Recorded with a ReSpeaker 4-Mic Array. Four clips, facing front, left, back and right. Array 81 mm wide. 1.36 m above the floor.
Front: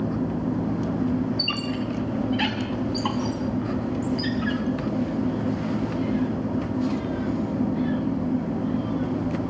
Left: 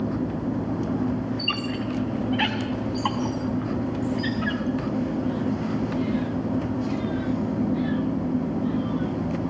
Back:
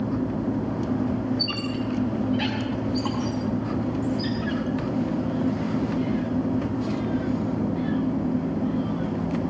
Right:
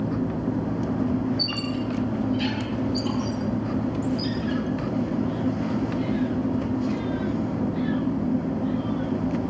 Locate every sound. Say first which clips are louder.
1.4 s a squeak: even, even; 75° left, 3.5 m